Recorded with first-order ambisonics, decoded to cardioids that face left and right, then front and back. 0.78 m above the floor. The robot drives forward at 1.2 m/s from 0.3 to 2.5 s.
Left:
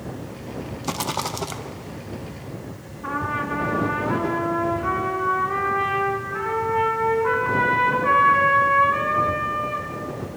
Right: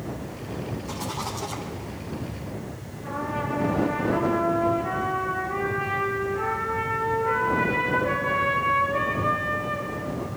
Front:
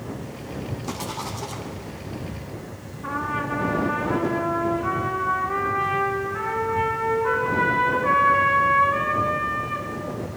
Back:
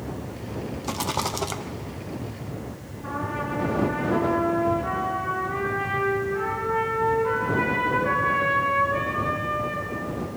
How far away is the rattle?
About 0.6 m.